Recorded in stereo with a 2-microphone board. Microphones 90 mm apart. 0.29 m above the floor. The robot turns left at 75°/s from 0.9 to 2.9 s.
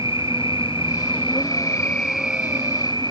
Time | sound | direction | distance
0.0 | an insect | 95° left | ?